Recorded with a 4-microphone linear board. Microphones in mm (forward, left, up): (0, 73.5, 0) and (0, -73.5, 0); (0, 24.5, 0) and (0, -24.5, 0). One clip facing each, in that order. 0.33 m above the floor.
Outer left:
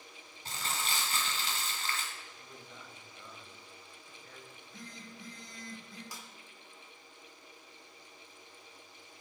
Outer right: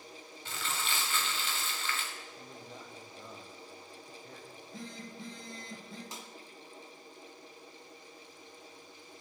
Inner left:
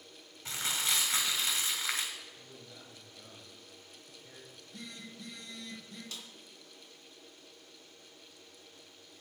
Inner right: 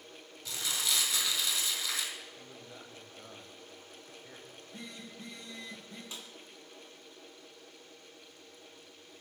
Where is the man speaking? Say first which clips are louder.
Outer right 4 dB, inner right 3 dB; 30° right (ahead or behind), 1.5 m.